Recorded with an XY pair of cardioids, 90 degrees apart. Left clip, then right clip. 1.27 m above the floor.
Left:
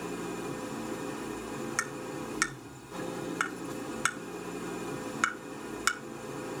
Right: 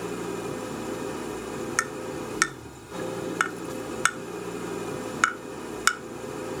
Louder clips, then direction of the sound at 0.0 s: Right 5 dB; 45° right.